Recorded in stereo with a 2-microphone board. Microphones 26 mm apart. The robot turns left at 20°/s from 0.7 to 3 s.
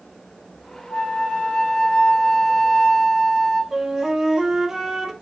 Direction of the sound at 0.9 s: 30° left.